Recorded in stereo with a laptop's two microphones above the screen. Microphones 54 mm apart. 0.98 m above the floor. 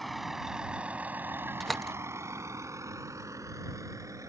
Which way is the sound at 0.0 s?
Centre (ahead or behind).